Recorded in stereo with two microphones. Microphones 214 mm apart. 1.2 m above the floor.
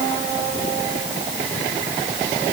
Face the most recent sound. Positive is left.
No sound to turn to.